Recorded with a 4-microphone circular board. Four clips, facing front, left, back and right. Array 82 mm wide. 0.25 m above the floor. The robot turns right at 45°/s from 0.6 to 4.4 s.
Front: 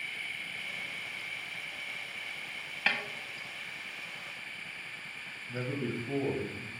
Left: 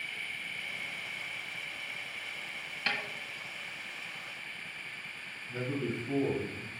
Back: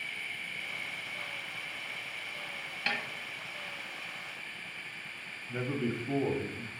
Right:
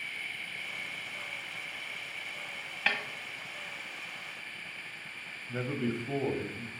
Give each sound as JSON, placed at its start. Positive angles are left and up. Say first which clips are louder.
{"t": 2.9, "sound": "a snare drum", "louder": "right 3 dB, front 3 dB", "azimuth_deg": -50, "distance_m": 1.4}
{"t": 5.5, "sound": "a man speaking", "louder": "right 2 dB, back 2 dB", "azimuth_deg": -110, "distance_m": 1.0}